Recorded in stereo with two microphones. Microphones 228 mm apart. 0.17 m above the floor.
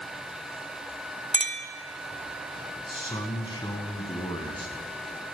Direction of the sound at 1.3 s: 35° right (ahead or behind).